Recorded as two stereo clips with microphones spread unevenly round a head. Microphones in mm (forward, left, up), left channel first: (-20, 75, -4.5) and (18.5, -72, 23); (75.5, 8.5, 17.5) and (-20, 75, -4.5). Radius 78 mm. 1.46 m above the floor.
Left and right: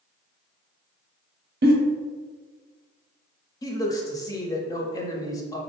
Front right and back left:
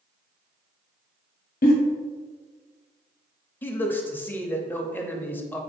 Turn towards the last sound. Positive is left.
turn(degrees=45)